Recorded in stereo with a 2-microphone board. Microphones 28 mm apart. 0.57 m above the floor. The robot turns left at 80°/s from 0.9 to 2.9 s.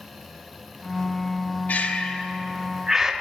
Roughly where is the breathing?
Left.